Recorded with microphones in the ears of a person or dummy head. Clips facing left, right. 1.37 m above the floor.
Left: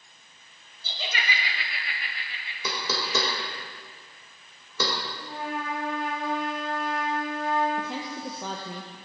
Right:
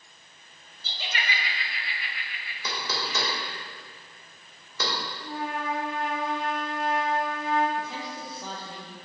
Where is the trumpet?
50° right (ahead or behind), 2.5 m.